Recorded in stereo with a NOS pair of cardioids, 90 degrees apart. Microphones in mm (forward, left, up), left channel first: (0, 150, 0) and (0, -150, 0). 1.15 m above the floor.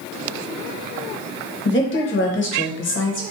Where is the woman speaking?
40° left, 0.8 m.